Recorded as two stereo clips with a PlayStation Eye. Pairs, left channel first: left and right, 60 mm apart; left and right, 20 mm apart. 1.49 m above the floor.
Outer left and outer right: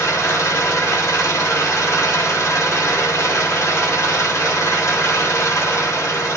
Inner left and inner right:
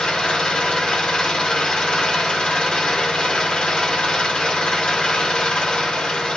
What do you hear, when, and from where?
0.0 s an engine running: 60° left (ahead or behind), 2 m